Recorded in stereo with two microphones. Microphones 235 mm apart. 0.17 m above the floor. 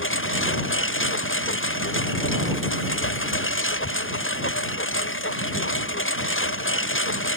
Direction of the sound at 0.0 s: 60° left (ahead or behind).